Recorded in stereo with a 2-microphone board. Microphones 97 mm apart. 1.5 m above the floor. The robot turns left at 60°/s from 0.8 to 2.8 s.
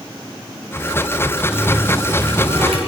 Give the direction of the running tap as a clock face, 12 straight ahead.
12 o'clock.